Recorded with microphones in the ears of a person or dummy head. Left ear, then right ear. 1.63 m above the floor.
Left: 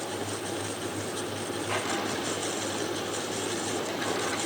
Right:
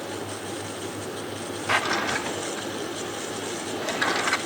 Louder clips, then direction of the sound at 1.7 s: Right 8 dB; 55° right (ahead or behind).